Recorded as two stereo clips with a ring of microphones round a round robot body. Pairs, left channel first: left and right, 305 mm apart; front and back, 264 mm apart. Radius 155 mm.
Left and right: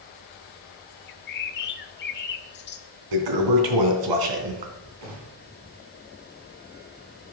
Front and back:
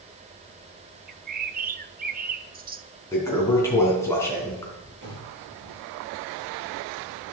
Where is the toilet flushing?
80° right, 3 m.